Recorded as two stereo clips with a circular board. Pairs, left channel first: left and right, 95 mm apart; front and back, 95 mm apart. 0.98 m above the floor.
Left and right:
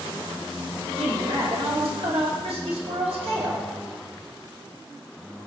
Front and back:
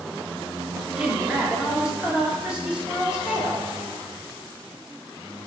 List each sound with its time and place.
1.0 s a woman speaking: 100° right, 1.8 m